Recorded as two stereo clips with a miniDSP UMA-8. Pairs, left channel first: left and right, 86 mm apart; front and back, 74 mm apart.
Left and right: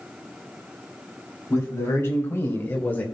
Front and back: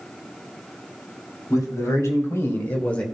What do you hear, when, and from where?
1.5 s a man speaking: 35° left, 3 m; by 3.0 s 55° left, 1.2 m